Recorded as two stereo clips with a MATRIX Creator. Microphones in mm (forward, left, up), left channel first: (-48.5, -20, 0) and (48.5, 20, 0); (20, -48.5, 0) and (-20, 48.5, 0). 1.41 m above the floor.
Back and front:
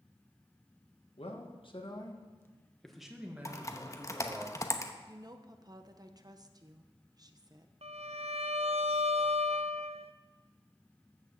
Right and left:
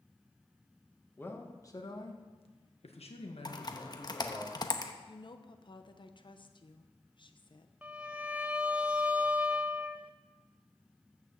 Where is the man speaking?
140° right, 1.9 m; by 4.5 s 35° right, 3 m.